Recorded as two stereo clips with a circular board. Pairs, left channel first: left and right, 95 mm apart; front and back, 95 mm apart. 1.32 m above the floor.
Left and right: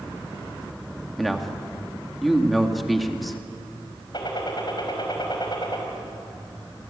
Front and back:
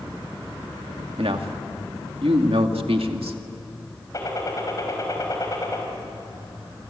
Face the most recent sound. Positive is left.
turn(degrees=50)